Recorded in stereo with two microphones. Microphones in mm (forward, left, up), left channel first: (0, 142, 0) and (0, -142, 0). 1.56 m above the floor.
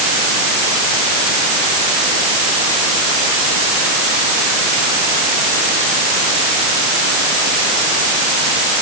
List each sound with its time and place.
Only background noise.